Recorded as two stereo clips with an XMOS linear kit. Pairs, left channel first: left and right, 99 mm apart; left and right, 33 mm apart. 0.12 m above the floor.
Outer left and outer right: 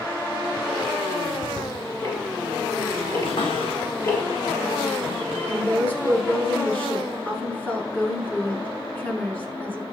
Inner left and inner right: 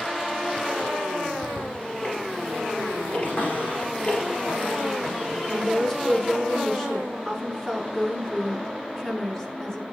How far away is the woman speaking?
About 1.2 m.